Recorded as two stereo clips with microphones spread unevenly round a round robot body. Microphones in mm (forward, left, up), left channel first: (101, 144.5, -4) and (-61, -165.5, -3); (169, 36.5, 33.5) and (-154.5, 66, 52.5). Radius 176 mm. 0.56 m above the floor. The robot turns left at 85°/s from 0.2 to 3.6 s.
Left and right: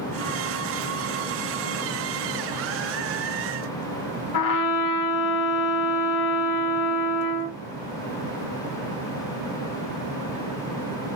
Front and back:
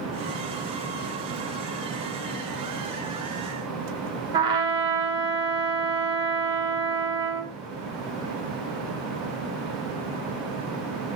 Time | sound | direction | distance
4.3 | a trumpet | 100° left | 2 m